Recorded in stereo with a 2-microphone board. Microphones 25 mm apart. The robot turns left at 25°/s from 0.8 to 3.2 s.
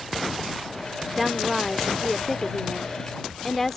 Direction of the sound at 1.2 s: 10° right (ahead or behind).